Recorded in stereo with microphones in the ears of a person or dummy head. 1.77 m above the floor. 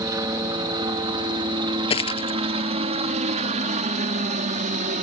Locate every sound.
0.0 s a helicopter: 15° right (ahead or behind); by 5.0 s 40° right (ahead or behind)
1.9 s a dropped coin: 25° left (ahead or behind)